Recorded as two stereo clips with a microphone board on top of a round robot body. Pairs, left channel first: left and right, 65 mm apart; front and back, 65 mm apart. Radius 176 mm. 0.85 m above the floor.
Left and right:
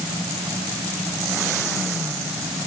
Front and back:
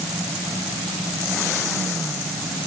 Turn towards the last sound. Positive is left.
No sound to turn to.